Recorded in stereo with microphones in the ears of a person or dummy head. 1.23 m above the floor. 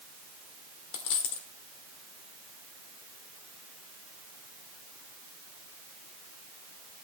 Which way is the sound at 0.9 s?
55° left (ahead or behind).